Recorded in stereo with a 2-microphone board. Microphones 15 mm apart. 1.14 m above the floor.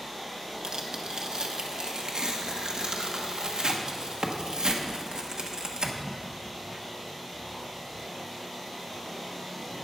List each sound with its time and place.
0.6 s tearing paper: 70° right (ahead or behind), 1.3 m